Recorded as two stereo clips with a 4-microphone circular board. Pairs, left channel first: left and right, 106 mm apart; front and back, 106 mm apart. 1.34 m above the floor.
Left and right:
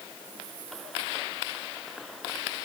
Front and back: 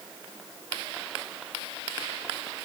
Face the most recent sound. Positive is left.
No sound to turn to.